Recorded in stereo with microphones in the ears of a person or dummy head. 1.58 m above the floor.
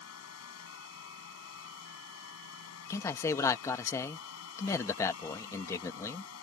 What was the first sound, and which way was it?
A fan, 90° left.